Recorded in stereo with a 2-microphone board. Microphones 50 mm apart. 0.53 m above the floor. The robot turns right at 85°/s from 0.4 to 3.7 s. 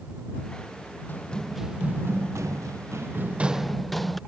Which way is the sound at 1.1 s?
40° left (ahead or behind).